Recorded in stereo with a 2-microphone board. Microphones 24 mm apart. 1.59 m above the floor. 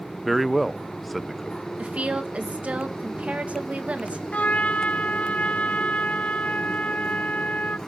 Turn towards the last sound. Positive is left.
turn(degrees=65)  # may be behind; listen again after turning